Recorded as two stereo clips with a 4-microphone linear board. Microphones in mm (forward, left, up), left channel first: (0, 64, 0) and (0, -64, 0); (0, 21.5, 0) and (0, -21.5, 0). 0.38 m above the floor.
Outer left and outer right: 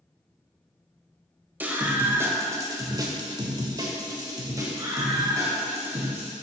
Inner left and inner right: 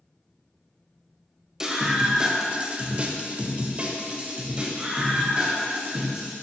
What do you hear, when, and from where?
1.6 s a scream: 15° right (ahead or behind), 1.7 m; by 6.3 s 20° right (ahead or behind), 3 m